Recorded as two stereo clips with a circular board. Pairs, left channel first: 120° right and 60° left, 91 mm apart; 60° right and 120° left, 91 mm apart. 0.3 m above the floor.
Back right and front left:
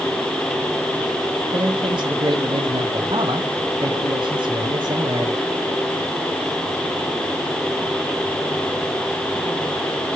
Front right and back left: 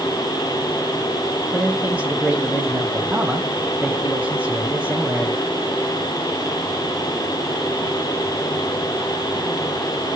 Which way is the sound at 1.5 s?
55° left.